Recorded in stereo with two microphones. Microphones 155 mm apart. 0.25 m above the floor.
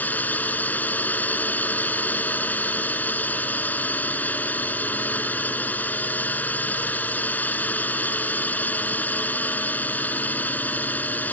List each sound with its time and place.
0.0 s a drone: 10° left (ahead or behind)